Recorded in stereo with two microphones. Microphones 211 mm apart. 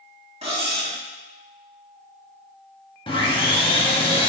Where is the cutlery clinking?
35° right (ahead or behind), 1.4 m.